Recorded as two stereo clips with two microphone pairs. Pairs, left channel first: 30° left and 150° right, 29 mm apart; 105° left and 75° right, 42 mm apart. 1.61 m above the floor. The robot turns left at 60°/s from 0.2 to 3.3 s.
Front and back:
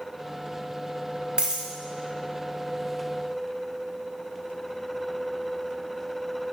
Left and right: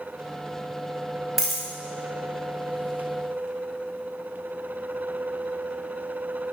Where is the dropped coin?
155° right, 1.8 m; by 1.7 s 170° right, 1.8 m.